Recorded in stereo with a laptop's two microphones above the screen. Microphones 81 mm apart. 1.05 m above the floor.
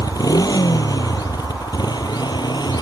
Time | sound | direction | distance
0.0 | a motorcycle | 50° left (ahead or behind) | ?